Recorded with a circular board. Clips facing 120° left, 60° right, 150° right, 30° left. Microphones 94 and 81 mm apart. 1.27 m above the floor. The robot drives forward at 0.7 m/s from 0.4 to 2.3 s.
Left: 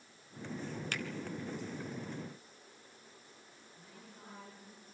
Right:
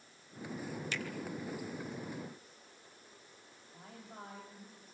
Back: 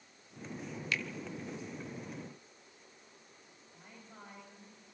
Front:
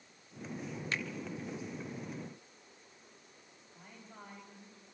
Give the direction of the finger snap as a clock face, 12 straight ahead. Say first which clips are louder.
Even, back 1 dB; 9 o'clock.